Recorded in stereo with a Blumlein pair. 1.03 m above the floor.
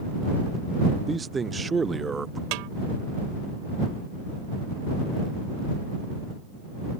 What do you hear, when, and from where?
1.1 s a man speaking: 15° right
2.5 s a snare drum: 45° right